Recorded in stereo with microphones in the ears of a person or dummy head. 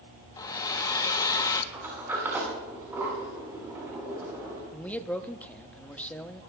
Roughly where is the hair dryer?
Left.